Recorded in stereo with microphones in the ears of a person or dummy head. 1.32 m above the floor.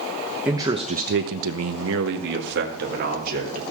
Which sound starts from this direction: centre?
A man speaking, at 0.5 s.